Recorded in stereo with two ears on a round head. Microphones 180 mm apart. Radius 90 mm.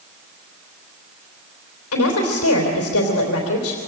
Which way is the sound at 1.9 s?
80° left.